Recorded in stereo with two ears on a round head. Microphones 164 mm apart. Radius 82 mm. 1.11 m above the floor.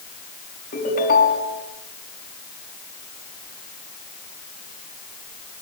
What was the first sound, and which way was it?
A ringtone, 50° left (ahead or behind).